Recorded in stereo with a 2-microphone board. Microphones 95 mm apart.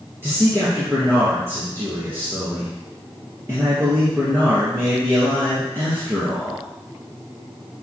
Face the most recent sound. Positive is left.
turn(degrees=-25)  # may be behind; listen again after turning